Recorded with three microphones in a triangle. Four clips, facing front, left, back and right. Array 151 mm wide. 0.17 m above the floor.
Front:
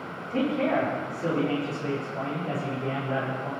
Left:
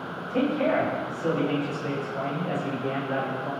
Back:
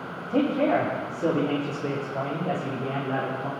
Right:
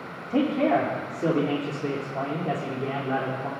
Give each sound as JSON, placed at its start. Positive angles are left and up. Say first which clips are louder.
{"t": 0.3, "sound": "a man speaking", "louder": "right 2 dB, back 3 dB", "azimuth_deg": -135, "distance_m": 8.0}